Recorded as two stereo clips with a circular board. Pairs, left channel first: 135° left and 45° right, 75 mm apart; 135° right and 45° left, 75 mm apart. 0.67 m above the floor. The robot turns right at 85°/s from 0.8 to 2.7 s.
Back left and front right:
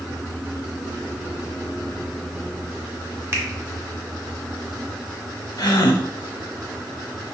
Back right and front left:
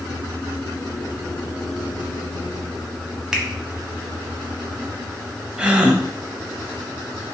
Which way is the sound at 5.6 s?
120° left.